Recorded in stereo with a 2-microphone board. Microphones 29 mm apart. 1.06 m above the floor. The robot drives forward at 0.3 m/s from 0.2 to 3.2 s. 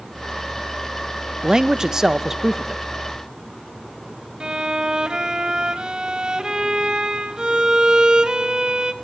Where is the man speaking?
20° right (ahead or behind), 0.6 m; by 2.9 s 15° right (ahead or behind), 1.0 m.